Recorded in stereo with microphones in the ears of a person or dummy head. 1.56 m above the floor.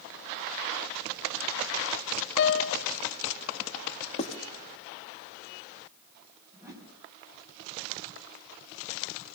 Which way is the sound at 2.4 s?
55° left (ahead or behind).